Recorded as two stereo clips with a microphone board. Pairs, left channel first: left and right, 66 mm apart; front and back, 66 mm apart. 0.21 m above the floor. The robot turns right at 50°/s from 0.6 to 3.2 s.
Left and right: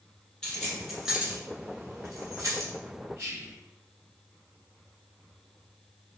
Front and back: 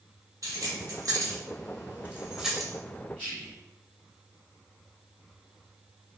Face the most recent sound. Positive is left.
turn(degrees=-65)